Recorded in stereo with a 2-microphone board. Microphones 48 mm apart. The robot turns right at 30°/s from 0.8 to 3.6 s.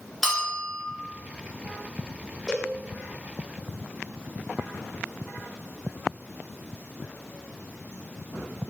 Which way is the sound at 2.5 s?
5° right (ahead or behind).